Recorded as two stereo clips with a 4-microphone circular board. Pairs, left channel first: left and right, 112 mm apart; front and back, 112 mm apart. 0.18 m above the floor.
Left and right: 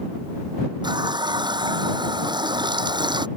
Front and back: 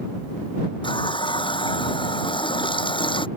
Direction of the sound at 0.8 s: 40° right.